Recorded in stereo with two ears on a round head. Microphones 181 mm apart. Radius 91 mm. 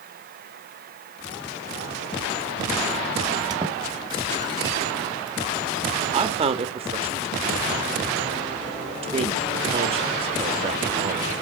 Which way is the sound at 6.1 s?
30° right (ahead or behind).